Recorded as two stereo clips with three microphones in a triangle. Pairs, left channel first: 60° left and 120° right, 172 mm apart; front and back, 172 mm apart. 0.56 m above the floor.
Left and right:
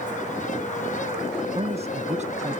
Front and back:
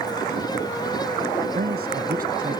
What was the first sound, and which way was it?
A man speaking, 170° right.